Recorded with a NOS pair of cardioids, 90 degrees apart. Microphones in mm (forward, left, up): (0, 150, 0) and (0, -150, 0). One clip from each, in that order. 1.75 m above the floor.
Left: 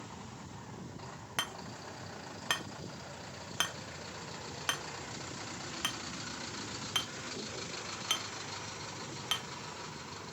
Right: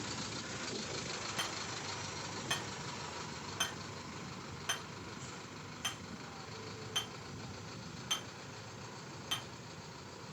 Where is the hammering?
60° left, 1.4 m.